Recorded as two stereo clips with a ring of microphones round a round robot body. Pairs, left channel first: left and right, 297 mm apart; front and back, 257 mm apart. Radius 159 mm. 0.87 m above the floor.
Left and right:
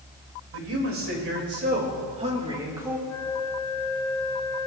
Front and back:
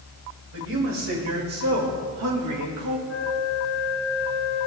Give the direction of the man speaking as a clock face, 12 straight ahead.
4 o'clock.